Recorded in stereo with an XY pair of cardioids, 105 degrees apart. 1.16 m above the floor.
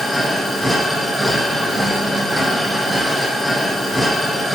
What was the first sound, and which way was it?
A machine running, 5° right.